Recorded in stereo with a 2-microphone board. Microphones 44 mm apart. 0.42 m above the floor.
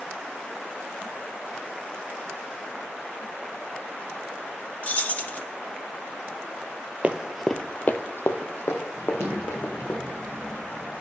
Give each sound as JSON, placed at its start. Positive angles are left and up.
{"t": 4.8, "sound": "keys jangling", "side_deg": 35, "distance_m": 0.6}
{"t": 7.0, "sound": "running footsteps", "side_deg": -30, "distance_m": 0.5}
{"t": 9.0, "sound": "a child speaking", "side_deg": -75, "distance_m": 1.5}